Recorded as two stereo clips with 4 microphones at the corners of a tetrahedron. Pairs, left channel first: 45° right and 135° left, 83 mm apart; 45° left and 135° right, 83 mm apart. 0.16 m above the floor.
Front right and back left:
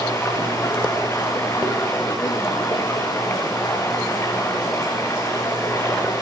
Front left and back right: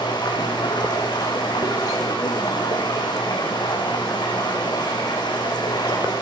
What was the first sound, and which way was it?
Running water, 15° left.